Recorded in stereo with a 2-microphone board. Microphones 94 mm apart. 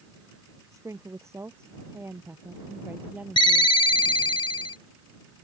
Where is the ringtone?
60° left (ahead or behind).